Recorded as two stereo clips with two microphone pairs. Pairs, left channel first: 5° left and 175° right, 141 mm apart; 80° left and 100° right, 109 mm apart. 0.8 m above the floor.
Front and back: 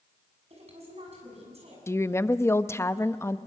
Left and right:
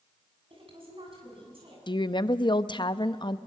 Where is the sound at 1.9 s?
70° left, 0.6 m.